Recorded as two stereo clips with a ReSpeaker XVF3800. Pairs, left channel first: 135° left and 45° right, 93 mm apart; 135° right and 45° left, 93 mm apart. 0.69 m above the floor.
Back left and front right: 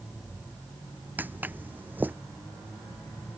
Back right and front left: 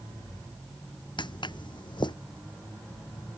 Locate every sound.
1.2 s footsteps: 115° right